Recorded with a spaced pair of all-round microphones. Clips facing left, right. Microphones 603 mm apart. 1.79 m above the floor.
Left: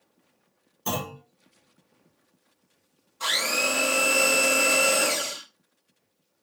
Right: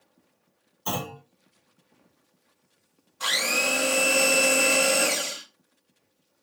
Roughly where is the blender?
Centre.